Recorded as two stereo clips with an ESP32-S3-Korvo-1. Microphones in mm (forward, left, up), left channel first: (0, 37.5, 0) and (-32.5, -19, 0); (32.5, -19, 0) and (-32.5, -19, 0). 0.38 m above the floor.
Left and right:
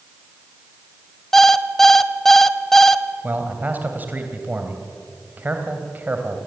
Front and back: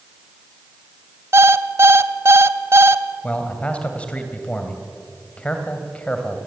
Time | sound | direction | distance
1.3 | an alarm clock | 145° left | 1.0 m
3.2 | a man speaking | 65° right | 2.5 m